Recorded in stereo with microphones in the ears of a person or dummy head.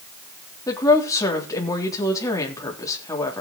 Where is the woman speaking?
20° left (ahead or behind), 3.5 m.